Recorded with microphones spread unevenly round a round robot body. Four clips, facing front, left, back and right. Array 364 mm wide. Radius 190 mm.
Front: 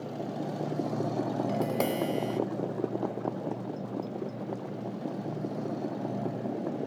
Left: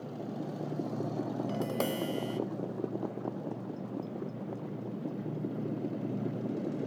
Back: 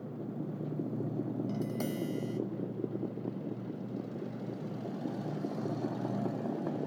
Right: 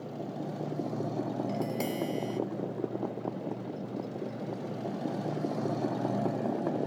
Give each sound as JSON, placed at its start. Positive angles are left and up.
{"t": 1.5, "sound": "tapping", "azimuth_deg": 15, "distance_m": 0.7}